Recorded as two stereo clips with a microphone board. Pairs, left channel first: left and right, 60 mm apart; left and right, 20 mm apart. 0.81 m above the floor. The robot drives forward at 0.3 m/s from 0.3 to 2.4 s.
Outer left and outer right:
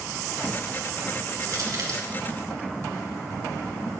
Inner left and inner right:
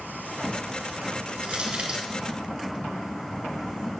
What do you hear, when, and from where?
1.4 s crushing: 70° right (ahead or behind), 2.5 m; by 2.0 s 65° right (ahead or behind), 2.5 m